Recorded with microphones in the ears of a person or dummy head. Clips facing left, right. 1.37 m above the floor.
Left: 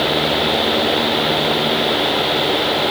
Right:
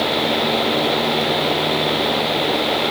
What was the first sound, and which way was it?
Only background noise.